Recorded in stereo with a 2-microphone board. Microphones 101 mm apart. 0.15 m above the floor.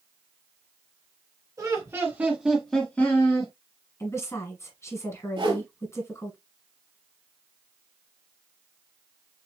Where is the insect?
No insect in this recording.